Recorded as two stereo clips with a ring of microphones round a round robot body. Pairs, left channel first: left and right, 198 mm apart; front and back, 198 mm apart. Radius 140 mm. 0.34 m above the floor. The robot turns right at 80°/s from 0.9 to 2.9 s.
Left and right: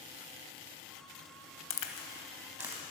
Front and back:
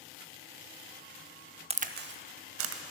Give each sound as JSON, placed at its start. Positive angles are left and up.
{"t": 1.7, "sound": "a crack", "azimuth_deg": 115, "distance_m": 0.6}